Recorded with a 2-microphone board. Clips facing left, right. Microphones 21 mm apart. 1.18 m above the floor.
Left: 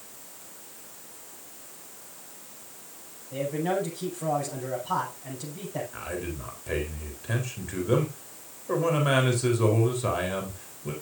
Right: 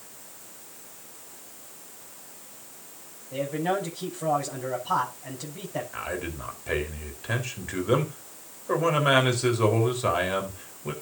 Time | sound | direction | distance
3.3 | a man speaking | 15° right (ahead or behind) | 6.5 m
5.9 | a man speaking | 20° right (ahead or behind) | 4 m